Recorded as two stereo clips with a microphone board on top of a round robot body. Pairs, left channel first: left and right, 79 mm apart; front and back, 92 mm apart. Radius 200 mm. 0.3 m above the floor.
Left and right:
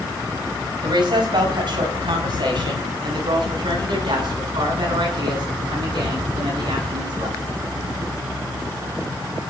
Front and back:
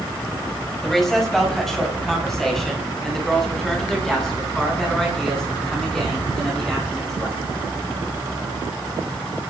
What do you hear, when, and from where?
0.8 s a woman speaking: 85° right, 5 m